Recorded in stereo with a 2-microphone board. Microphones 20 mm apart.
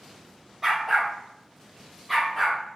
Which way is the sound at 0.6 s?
25° right (ahead or behind).